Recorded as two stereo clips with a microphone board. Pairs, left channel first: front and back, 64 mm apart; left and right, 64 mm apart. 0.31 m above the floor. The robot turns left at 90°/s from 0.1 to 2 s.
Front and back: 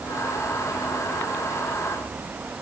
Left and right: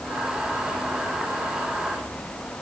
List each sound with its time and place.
Only background noise.